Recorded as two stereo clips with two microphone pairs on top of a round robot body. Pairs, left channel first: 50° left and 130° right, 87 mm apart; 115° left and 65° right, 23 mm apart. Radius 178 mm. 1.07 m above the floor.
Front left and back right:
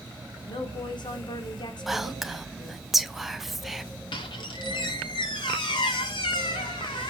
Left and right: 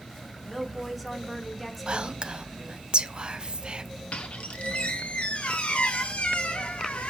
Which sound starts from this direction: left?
A squeak, at 4.1 s.